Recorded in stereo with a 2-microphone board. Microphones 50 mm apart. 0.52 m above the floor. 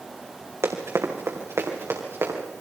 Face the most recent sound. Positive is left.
turn(degrees=-60)  # may be behind; listen again after turning